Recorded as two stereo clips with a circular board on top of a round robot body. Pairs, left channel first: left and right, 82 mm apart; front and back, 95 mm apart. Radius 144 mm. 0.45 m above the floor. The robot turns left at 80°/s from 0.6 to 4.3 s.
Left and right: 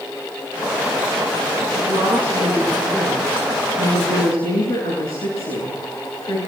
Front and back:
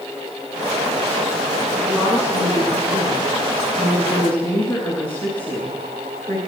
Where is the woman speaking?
80° right, 8 m; by 6.4 s 75° left, 8 m.